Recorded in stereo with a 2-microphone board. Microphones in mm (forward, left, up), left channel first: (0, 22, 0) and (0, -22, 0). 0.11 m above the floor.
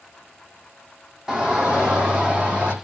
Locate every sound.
1.3 s a shout: 20° right (ahead or behind), 7 m